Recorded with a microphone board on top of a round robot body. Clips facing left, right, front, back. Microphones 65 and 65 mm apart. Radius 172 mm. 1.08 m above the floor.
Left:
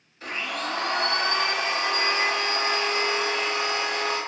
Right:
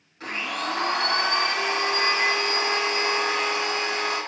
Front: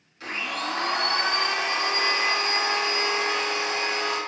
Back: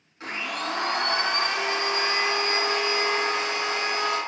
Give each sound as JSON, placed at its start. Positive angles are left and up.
{"t": 0.2, "sound": "a blender", "azimuth_deg": -125, "distance_m": 1.1}